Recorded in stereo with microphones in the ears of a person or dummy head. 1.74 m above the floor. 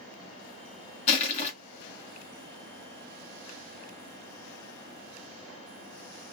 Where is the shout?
I don't hear a shout.